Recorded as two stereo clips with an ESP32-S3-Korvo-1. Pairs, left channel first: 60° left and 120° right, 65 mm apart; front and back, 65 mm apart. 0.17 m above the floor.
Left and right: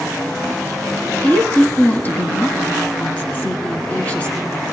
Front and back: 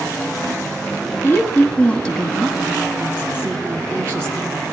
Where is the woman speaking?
10° left, 1.3 m; by 4.5 s 130° left, 2 m.